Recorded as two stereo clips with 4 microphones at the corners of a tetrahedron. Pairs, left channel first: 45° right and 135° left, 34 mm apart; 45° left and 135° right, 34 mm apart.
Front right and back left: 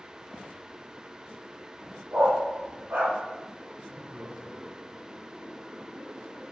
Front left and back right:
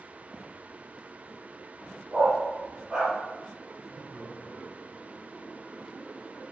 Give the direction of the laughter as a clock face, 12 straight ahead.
7 o'clock.